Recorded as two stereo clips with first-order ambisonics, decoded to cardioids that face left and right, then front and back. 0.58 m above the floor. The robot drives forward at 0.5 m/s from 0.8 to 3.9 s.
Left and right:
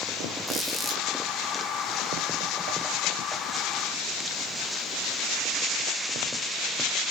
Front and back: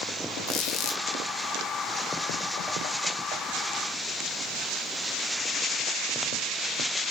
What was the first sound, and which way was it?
A squeak, 5° right.